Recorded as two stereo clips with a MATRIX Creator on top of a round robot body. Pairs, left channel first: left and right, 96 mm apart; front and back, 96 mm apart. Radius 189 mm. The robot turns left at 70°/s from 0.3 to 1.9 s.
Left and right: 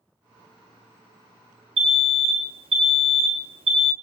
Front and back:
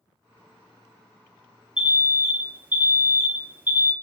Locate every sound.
1.8 s an alarm: 100° right, 0.8 m; by 3.9 s 110° right, 0.8 m